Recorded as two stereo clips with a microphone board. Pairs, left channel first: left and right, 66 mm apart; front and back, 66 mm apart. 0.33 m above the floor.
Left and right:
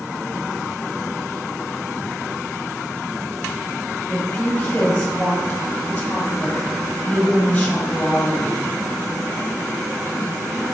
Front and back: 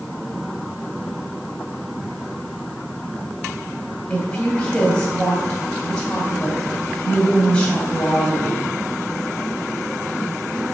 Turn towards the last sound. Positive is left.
turn(degrees=30)